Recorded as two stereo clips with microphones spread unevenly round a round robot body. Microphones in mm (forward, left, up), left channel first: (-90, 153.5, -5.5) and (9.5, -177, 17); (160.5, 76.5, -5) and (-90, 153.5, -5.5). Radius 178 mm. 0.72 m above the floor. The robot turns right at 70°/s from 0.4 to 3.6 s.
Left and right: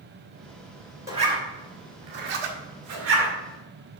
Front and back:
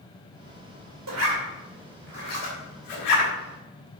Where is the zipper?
155° right, 1.8 m; by 3.3 s straight ahead, 1.8 m.